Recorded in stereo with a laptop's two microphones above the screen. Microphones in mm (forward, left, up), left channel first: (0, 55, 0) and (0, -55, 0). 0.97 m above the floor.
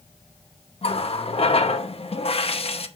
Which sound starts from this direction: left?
A running tap, at 0.8 s.